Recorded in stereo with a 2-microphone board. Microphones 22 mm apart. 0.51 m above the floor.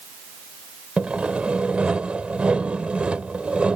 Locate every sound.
1.0 s sawing: 70° right (ahead or behind)